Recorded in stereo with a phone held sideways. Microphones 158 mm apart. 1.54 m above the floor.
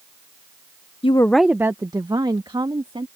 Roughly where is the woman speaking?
Left.